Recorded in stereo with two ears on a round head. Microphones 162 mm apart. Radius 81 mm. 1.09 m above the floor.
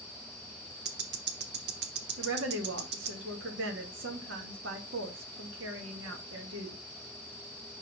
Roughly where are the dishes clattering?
I don't hear dishes clattering.